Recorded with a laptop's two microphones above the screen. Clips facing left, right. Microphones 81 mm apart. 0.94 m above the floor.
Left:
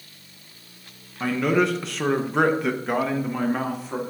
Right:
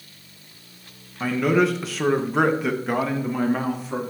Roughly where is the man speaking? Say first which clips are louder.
Right 1 dB; centre.